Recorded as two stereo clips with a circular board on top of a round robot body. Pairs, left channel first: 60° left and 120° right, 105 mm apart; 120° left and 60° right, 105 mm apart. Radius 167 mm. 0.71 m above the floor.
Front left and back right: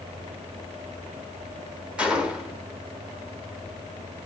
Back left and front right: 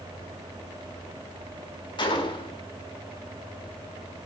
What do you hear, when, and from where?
2.0 s a gunshot: 160° left, 2.5 m